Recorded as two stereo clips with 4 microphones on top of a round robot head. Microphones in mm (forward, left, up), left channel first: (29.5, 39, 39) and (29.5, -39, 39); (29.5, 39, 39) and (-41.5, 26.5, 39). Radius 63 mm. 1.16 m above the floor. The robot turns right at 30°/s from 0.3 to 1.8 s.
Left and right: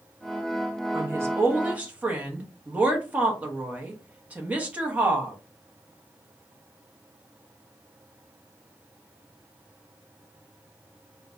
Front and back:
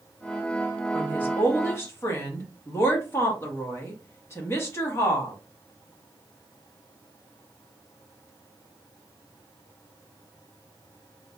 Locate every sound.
0.9 s a woman speaking: 55° right, 0.8 m; by 5.4 s 25° right, 0.8 m